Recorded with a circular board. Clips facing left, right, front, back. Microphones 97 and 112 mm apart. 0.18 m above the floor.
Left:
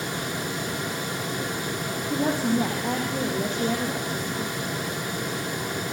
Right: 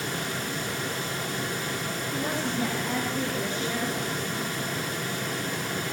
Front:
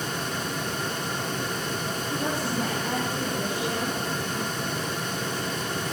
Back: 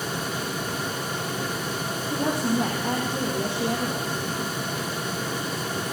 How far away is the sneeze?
I don't hear a sneeze.